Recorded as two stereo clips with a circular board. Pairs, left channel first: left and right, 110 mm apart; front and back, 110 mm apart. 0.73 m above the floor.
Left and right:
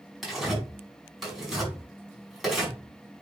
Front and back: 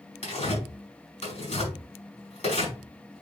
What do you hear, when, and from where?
0.2 s tearing paper: 5° right, 5 m